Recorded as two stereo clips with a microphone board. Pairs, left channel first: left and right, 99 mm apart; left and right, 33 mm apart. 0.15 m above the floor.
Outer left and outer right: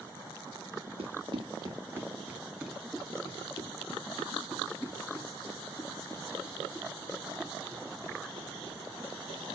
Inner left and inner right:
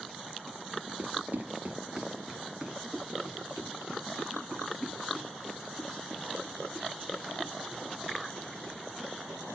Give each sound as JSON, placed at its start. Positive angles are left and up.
{"t": 1.0, "sound": "running footsteps", "side_deg": -70, "distance_m": 1.9}